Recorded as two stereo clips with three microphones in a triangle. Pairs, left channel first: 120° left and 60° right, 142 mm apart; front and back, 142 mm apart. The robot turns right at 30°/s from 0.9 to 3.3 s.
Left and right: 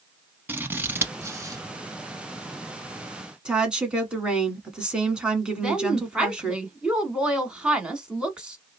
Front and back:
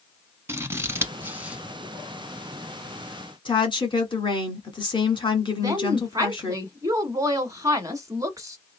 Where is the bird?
No bird in this recording.